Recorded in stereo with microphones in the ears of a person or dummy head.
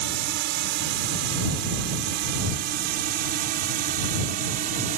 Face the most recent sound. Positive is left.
turn(degrees=-45)  # may be behind; listen again after turning